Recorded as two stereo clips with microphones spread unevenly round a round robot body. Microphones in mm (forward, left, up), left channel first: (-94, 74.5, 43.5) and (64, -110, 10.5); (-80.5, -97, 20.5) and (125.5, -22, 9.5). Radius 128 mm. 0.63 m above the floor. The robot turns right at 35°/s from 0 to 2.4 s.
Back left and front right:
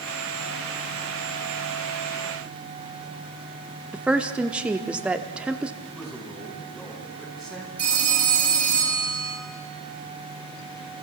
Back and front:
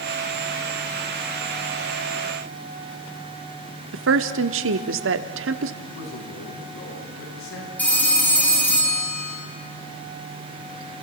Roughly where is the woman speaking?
Ahead left.